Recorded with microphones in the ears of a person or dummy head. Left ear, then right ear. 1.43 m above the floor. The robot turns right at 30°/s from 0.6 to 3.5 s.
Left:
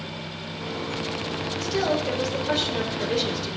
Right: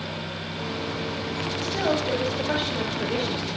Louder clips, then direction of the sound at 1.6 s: Left 1 dB; 45° left.